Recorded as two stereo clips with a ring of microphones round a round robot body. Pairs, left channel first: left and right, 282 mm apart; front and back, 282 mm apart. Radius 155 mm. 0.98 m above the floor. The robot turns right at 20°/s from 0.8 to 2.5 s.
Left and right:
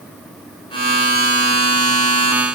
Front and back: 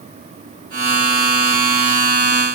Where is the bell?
I don't hear a bell.